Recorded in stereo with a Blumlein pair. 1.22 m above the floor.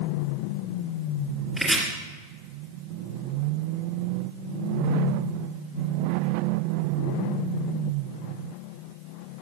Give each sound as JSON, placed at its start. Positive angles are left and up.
{"t": 1.6, "sound": "chopping", "azimuth_deg": -5, "distance_m": 2.0}